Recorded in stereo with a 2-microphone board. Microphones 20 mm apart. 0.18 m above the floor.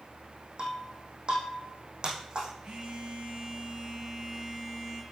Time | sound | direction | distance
0.6 | breaking glass | 45° right (ahead or behind) | 4 m
2.6 | a phone buzzing | 50° right (ahead or behind) | 4 m